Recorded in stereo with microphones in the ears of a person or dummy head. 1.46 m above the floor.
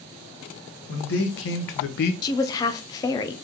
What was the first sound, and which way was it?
A man speaking, 75° left (ahead or behind).